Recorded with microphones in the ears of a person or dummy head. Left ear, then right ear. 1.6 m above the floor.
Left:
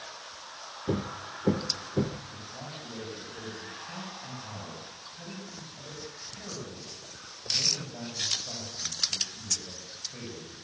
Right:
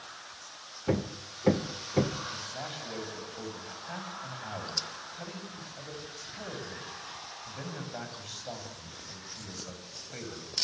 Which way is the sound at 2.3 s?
50° right (ahead or behind).